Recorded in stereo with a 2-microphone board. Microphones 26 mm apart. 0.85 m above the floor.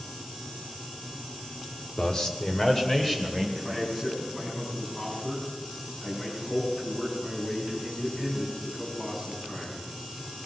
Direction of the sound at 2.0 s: 30° left (ahead or behind).